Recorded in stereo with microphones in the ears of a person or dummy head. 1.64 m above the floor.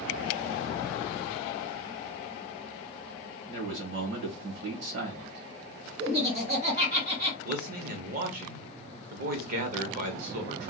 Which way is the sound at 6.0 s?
55° right (ahead or behind).